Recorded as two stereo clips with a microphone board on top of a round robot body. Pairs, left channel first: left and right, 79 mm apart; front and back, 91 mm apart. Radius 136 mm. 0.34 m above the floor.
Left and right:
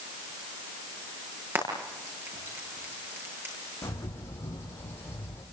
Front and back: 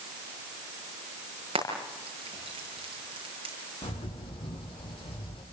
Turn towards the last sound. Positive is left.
turn(degrees=30)